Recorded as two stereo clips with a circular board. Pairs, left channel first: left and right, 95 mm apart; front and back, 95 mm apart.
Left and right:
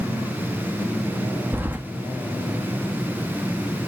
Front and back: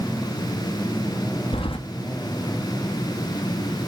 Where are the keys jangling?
20° right, 1.2 m.